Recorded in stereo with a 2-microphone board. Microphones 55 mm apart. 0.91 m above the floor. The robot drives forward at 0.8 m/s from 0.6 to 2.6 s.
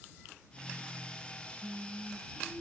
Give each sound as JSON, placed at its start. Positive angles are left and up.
{"t": 1.6, "sound": "singing", "side_deg": -5, "distance_m": 5.0}